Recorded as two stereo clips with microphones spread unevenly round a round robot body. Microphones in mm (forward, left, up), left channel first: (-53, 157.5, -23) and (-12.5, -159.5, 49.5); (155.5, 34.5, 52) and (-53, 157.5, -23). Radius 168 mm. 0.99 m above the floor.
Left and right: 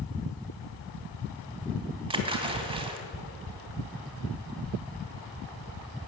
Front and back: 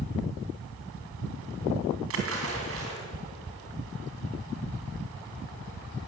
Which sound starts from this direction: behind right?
A splash, at 2.1 s.